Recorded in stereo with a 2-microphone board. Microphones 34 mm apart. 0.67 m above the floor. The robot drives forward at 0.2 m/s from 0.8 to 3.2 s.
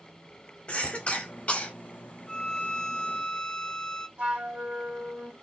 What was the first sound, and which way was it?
A cough, 40° left (ahead or behind).